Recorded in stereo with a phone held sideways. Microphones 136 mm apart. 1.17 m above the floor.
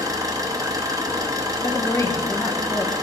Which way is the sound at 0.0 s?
25° right (ahead or behind).